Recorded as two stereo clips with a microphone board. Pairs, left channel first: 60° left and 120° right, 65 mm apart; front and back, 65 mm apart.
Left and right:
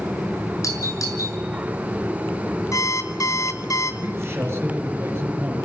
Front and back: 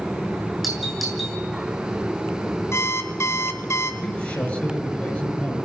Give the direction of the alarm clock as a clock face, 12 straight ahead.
11 o'clock.